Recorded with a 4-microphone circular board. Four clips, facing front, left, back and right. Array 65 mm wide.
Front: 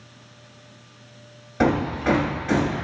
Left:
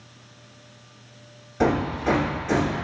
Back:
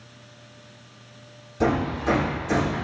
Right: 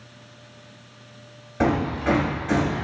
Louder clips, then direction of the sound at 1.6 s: Even, front 2 dB; 15° right.